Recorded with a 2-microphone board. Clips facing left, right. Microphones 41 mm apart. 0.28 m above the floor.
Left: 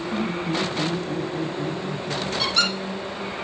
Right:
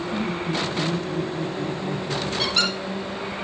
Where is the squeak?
15° right (ahead or behind), 7.5 m.